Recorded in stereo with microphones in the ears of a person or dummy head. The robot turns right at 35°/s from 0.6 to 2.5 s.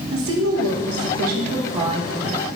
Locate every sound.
0.1 s a woman speaking: 80° right, 1.5 m; by 2.5 s 15° right, 1.5 m